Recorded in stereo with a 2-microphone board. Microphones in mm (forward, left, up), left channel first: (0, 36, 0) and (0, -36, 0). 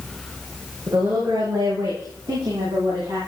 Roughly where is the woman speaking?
Right.